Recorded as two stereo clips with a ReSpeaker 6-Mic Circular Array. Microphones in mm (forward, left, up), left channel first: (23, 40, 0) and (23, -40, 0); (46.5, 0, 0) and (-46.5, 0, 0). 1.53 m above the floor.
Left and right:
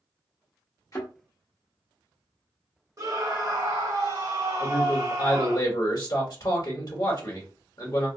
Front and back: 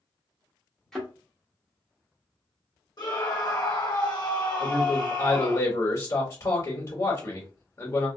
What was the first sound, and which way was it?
A thud, 85° left.